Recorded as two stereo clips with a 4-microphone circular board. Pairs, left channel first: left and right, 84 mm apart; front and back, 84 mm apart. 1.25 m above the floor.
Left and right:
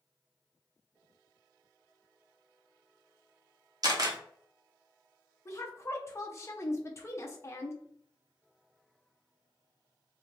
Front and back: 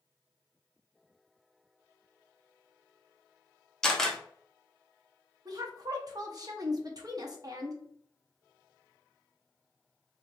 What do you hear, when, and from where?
3.8 s a camera shutter: 80° right, 0.7 m
5.5 s a woman speaking: 145° left, 0.7 m